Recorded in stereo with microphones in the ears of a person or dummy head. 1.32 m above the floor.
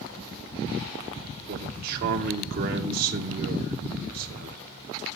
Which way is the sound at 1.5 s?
45° right (ahead or behind).